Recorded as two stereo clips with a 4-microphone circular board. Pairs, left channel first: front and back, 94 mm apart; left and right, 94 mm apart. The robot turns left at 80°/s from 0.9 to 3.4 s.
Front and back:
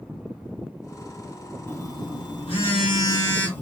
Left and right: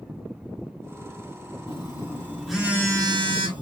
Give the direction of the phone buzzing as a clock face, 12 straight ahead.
10 o'clock.